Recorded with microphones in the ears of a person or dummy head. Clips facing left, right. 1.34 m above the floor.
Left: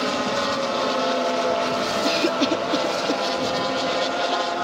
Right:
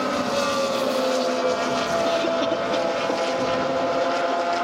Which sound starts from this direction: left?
A cough, at 2.0 s.